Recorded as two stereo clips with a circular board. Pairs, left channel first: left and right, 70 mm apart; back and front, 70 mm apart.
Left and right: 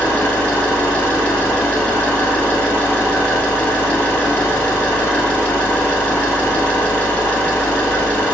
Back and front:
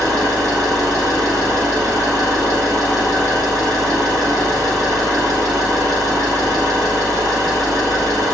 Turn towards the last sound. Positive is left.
turn(degrees=25)